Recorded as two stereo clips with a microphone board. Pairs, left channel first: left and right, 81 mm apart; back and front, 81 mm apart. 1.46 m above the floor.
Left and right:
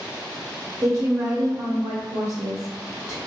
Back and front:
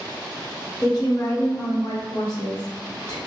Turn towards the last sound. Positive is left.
turn(degrees=-140)